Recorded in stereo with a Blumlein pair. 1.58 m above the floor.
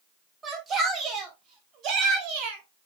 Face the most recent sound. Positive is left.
turn(degrees=-40)